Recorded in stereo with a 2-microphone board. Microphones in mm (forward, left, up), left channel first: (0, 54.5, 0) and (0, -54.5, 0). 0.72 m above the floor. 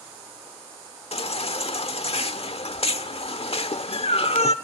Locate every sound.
1.1 s a baby crying: 65° left (ahead or behind), 1.4 m